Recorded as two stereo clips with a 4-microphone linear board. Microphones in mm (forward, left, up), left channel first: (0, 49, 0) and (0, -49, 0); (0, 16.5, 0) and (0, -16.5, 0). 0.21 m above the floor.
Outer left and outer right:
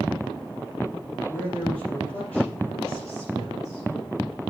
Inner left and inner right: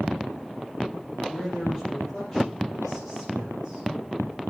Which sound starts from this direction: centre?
A man speaking, at 1.3 s.